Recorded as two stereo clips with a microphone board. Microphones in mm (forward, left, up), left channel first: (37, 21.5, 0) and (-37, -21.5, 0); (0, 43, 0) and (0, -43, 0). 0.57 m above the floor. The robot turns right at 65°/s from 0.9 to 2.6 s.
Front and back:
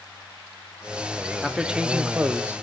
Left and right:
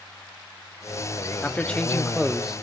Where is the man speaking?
130° left, 0.8 m; by 2.6 s 155° right, 0.8 m.